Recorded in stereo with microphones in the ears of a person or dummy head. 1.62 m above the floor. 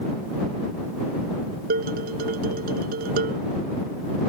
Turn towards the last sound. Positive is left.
turn(degrees=-50)  # may be behind; listen again after turning